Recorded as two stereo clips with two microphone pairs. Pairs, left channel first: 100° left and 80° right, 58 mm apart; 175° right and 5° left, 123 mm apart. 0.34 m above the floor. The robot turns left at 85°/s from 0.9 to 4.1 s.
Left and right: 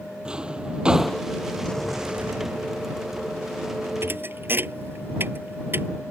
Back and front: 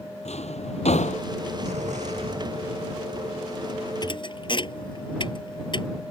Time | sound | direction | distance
0.2 | a drawer | 155° right | ?
1.6 | an explosion | 30° left | ?
4.0 | a thud | 120° right | ?